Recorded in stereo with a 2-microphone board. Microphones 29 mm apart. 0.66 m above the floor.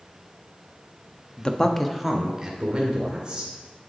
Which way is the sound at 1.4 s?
40° left (ahead or behind).